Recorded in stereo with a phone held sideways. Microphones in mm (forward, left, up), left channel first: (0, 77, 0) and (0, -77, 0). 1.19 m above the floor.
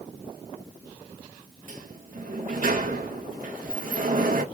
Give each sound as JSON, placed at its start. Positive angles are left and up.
{"t": 1.7, "sound": "a sliding door", "side_deg": -55, "distance_m": 1.1}